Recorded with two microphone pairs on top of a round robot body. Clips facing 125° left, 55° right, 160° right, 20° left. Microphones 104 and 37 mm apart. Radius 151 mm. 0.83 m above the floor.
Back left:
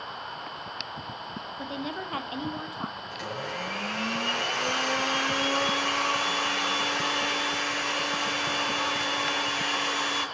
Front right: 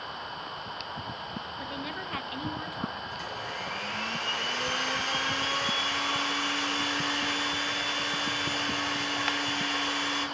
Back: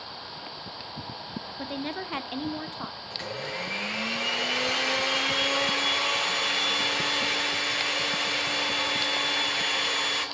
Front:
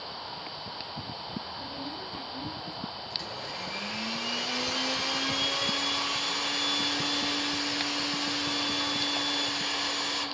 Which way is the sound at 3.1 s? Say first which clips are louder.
Back left 2 dB, back 3 dB; 155° left.